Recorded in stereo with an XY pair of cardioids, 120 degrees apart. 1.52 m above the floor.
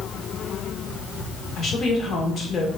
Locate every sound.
1.6 s a woman speaking: 45° left, 1.5 m